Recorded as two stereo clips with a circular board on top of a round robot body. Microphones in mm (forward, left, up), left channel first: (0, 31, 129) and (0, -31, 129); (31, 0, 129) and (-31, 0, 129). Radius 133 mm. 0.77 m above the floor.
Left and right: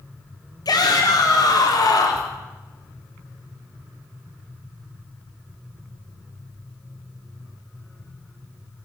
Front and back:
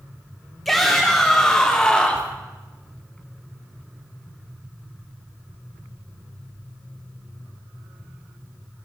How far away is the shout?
About 3 m.